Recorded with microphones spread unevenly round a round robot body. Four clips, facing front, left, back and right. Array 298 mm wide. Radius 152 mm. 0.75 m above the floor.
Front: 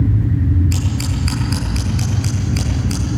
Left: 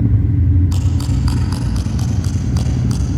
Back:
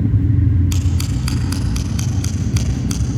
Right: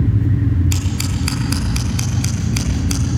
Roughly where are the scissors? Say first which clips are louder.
Left 2 dB, even; behind right.